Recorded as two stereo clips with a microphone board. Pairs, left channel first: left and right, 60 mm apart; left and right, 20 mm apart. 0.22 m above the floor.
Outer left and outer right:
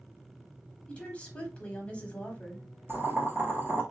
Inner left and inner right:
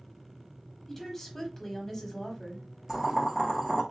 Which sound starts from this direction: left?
A woman speaking, at 0.9 s.